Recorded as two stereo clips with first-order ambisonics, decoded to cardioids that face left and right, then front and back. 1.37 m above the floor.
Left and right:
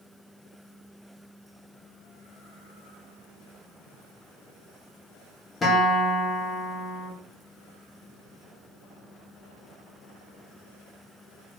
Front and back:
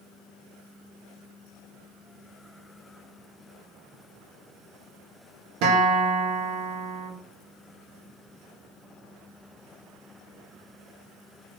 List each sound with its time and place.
5.6 s a guitar: 160° left, 0.8 m